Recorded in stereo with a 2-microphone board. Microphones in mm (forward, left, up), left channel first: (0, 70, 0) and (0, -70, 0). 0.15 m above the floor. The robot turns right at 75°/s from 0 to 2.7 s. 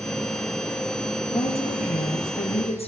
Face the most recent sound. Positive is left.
turn(degrees=130)